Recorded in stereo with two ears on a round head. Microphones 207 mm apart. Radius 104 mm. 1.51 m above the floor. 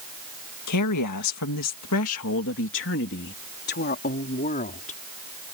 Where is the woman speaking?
80° left; by 5.0 s 35° left (ahead or behind).